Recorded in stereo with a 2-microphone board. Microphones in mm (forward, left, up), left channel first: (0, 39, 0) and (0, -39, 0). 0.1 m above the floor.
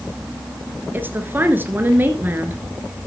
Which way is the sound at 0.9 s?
25° right (ahead or behind).